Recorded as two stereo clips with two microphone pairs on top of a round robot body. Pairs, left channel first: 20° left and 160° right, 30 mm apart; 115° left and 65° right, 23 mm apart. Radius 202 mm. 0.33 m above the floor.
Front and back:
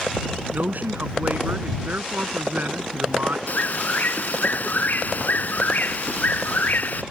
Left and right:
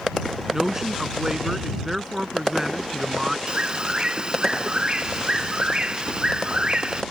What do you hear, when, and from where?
0.5 s a man speaking: 130° right
3.5 s a bird: 10° right